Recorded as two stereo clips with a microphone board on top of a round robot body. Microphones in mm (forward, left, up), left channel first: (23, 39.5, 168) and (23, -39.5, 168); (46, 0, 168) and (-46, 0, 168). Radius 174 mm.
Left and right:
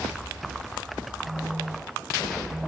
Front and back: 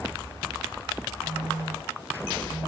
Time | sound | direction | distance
1.2 | a phone buzzing | 170° left | 8.5 m